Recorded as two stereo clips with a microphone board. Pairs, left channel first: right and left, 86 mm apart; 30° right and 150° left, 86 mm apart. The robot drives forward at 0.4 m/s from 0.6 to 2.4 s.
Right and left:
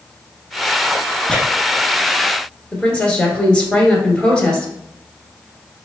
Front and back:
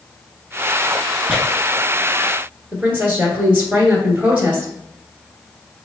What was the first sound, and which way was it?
Tearing paper, 150° right.